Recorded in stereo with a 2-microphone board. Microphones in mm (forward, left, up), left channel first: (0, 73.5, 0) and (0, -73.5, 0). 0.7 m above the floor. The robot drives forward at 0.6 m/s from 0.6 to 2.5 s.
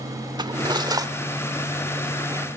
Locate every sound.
0.4 s cutlery clinking: 30° right (ahead or behind), 1.4 m; by 2.5 s 20° right (ahead or behind), 2.5 m